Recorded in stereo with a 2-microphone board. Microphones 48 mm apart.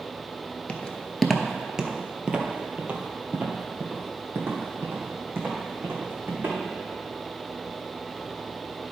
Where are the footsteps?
25° left (ahead or behind), 0.8 m; by 6.6 s 50° right (ahead or behind), 3 m.